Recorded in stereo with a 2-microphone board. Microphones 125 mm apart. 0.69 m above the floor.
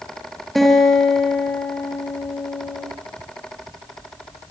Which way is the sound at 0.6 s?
Centre (ahead or behind).